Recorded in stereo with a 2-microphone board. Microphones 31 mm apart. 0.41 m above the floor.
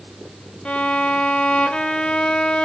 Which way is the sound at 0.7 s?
35° left (ahead or behind).